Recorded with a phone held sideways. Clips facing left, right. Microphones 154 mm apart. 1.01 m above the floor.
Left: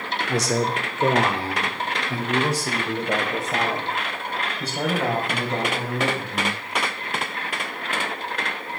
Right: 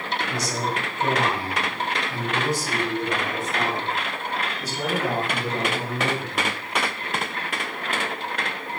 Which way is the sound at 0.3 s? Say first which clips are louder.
Left 8 dB; 85° left.